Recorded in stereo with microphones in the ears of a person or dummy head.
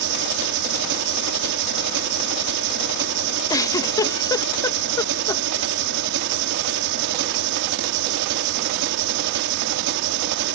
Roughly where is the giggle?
Centre.